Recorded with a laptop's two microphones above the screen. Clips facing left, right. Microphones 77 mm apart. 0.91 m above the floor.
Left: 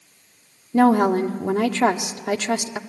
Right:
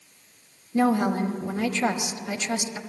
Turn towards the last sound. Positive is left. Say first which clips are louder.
# left 6 dB
turn(degrees=65)  # may be behind; listen again after turning